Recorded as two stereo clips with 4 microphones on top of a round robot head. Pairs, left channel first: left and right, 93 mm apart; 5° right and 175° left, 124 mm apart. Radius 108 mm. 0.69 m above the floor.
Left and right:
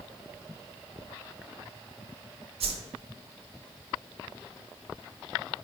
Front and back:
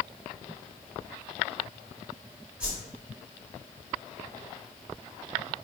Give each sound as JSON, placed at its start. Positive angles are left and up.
{"t": 2.6, "sound": "a whoosh", "azimuth_deg": -100, "distance_m": 0.6}